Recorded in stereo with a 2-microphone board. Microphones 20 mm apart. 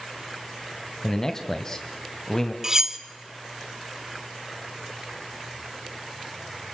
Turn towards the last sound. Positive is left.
turn(degrees=-25)  # may be behind; listen again after turning